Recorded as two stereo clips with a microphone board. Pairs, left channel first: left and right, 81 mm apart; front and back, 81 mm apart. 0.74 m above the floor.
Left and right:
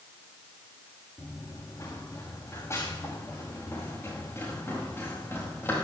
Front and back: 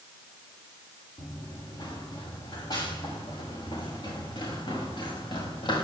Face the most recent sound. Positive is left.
turn(degrees=25)